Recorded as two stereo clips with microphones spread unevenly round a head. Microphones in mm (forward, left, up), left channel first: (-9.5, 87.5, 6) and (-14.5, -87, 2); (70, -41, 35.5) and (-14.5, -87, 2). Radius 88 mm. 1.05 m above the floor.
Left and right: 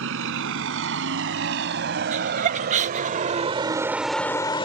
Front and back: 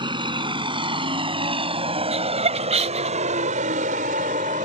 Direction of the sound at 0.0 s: 105° right.